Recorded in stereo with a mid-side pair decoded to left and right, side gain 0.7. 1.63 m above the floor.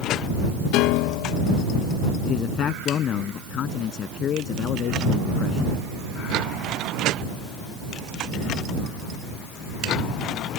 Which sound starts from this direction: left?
A piano, at 0.7 s.